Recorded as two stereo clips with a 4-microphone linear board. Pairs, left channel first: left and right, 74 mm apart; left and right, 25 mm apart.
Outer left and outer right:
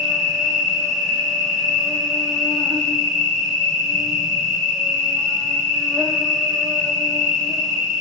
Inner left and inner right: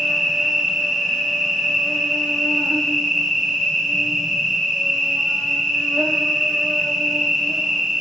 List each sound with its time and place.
0.0 s an insect: centre (ahead or behind), 2 m